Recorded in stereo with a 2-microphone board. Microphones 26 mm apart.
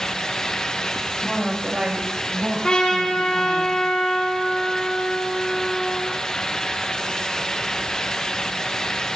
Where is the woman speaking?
15° right (ahead or behind), 1.9 m; by 3.6 s 45° right (ahead or behind), 2.5 m.